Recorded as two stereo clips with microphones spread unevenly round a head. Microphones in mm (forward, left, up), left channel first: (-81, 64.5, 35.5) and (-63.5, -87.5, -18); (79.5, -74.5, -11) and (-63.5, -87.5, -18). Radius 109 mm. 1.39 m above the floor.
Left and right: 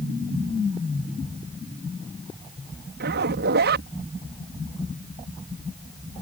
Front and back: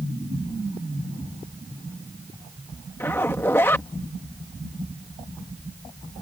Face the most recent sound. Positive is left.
turn(degrees=-70)